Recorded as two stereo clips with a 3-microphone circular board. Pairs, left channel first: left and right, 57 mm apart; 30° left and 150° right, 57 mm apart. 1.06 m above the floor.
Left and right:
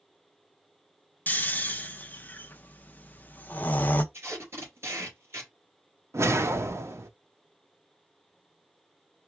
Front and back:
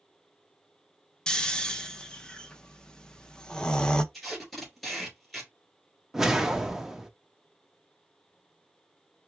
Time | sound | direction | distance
1.3 | snoring | 90° left | 0.5 m
4.1 | tape being pulled | 55° right | 2.5 m
6.1 | a whoosh | 65° right | 0.6 m